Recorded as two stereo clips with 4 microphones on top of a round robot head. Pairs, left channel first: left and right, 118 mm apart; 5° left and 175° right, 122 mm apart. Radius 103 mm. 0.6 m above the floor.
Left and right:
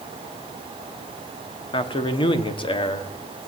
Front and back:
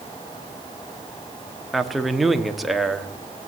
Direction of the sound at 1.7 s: 95° left.